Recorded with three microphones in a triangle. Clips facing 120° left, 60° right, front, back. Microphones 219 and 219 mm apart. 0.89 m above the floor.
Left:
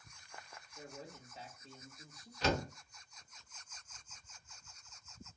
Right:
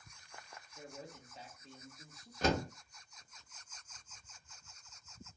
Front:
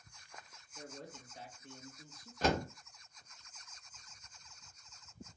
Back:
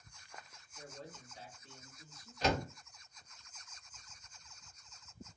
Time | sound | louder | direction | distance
0.8 | a man speaking | even, front 2 dB | 30° left | 1.1 m
2.4 | a door slam | right 2 dB, front 1 dB | 30° right | 0.8 m